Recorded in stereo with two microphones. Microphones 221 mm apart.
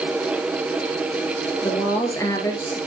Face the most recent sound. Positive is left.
turn(degrees=15)  # may be behind; listen again after turning